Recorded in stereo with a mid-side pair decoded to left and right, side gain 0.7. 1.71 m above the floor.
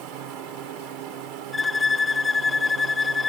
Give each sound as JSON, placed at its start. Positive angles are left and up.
{"t": 0.0, "sound": "a machine running", "azimuth_deg": -70}
{"t": 1.5, "sound": "a violin", "azimuth_deg": 20}